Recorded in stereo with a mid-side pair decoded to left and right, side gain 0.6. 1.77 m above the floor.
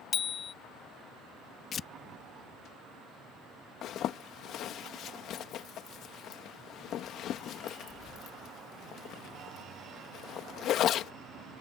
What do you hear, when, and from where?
0.1 s a bicycle bell: 35° left
1.7 s tearing paper: 40° left
3.8 s a zipper: 55° left